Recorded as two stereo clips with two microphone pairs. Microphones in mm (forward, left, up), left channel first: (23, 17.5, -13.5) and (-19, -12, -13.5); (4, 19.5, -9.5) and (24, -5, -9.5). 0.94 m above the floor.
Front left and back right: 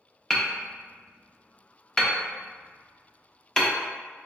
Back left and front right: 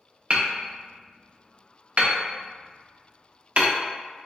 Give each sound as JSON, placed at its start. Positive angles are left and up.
{"t": 0.3, "sound": "hammering", "azimuth_deg": -40, "distance_m": 0.5}